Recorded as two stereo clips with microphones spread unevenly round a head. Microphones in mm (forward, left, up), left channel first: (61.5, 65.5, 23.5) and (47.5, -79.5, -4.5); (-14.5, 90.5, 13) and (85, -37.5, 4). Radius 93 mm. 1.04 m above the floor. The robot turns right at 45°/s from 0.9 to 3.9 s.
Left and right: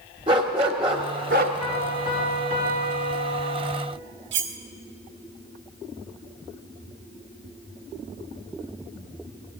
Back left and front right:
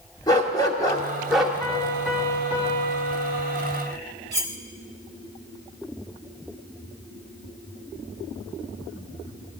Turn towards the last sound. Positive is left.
turn(degrees=-125)